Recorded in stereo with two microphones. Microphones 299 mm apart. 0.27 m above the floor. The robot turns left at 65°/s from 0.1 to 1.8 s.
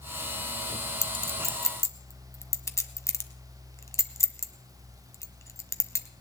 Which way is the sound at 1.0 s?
35° right (ahead or behind).